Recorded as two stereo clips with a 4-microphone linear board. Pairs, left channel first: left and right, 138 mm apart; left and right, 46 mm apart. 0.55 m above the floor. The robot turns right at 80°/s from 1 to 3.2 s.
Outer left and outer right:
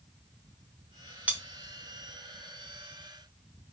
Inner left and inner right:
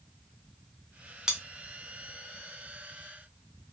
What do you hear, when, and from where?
1.3 s cutlery clinking: 10° right (ahead or behind), 0.7 m; by 1.4 s 20° right (ahead or behind), 0.7 m